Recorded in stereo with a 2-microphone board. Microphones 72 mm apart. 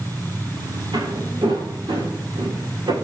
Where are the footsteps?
85° right, 6 m; by 2.9 s 90° right, 7.5 m.